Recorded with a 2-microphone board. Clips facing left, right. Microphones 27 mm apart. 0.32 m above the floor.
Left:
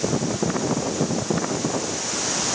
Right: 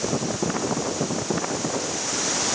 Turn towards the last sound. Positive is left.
No sound to turn to.